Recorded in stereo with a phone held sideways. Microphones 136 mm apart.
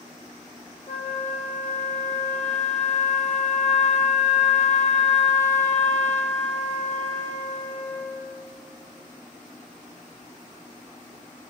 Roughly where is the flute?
Left.